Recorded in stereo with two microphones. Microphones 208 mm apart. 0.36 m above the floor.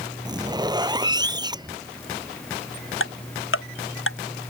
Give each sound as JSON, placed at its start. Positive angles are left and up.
{"t": 0.2, "sound": "a zipper", "side_deg": -20}
{"t": 3.0, "sound": "ticking", "side_deg": 75}